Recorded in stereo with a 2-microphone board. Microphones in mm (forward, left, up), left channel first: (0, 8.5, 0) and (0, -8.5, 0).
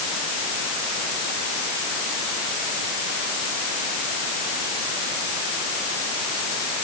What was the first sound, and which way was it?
Only background noise.